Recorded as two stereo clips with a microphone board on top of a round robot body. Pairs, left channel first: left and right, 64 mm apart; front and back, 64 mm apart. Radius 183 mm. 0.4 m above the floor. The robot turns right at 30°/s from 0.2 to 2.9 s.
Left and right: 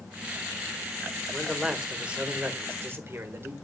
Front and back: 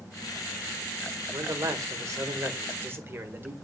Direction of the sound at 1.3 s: Straight behind.